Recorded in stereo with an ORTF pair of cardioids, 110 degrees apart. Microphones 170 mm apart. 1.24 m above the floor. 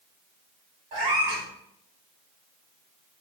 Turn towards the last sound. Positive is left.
turn(degrees=-50)